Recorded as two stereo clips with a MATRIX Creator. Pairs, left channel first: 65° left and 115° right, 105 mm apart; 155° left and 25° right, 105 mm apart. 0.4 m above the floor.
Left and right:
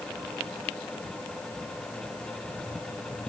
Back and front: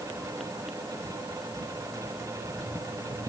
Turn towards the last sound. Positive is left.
No sound to turn to.